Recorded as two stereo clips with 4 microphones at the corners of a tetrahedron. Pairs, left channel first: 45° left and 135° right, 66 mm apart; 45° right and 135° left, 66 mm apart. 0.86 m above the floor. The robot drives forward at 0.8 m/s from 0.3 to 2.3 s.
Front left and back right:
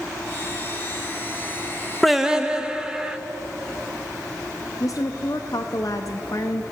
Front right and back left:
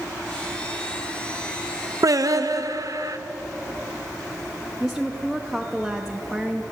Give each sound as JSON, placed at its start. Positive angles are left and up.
{"t": 2.0, "sound": "singing", "azimuth_deg": 135, "distance_m": 0.5}
{"t": 4.8, "sound": "a woman speaking", "azimuth_deg": 45, "distance_m": 0.6}